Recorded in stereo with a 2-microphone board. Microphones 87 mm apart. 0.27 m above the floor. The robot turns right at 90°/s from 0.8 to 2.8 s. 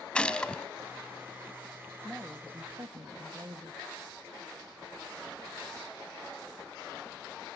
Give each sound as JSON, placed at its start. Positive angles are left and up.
{"t": 0.1, "sound": "a gunshot", "side_deg": 10, "distance_m": 1.1}
{"t": 2.0, "sound": "a woman speaking", "azimuth_deg": 175, "distance_m": 1.2}